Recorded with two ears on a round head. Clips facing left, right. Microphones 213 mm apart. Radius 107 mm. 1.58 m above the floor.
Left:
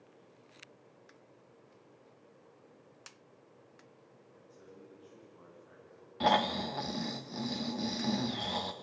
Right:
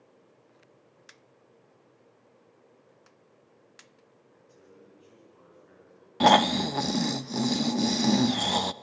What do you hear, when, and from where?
4.3 s a man speaking: 35° right (ahead or behind), 10 m; by 6.1 s 30° right (ahead or behind), 8.5 m
6.2 s snoring: 60° right (ahead or behind), 0.5 m